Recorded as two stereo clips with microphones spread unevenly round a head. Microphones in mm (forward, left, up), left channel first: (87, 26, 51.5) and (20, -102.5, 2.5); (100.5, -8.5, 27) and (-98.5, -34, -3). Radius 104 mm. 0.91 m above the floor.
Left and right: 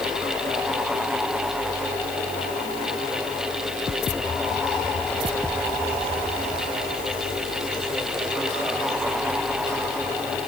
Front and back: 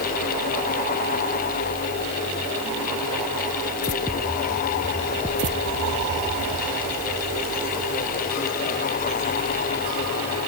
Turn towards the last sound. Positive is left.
No sound to turn to.